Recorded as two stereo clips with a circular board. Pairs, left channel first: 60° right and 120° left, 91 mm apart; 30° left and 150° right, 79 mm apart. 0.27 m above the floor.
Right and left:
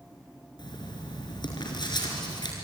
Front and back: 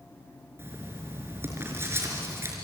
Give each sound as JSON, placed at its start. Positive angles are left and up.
{"t": 0.6, "sound": "writing", "azimuth_deg": -90, "distance_m": 4.5}